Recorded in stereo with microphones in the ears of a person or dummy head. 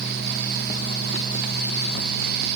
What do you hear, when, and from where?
Only background noise.